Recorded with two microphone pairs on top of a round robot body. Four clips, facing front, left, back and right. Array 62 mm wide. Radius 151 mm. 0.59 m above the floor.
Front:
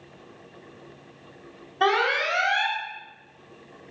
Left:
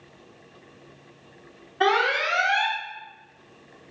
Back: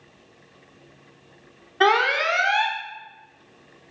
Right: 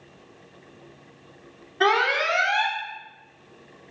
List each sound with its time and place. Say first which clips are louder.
1.8 s an alarm: right 1 dB, back 3 dB; straight behind, 1.5 m